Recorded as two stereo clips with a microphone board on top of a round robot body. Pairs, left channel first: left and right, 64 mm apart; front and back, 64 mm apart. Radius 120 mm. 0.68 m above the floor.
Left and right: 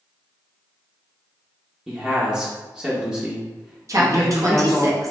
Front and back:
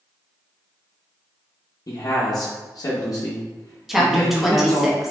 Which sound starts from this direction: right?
A woman speaking, at 3.9 s.